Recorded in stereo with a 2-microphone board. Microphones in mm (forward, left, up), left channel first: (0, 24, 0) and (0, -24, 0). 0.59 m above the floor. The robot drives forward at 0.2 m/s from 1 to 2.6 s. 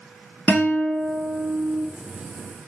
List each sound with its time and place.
0.5 s a guitar: 30° left (ahead or behind), 1.2 m; by 1.9 s 25° left (ahead or behind), 1.3 m